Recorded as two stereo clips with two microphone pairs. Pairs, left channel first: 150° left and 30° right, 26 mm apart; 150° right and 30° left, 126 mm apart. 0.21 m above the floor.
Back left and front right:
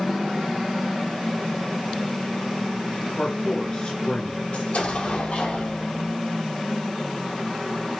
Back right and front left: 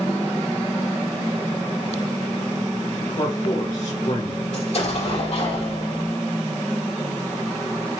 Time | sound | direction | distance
3.1 | a man speaking | 160° right | 3.5 m
4.5 | an explosion | 175° right | 4.5 m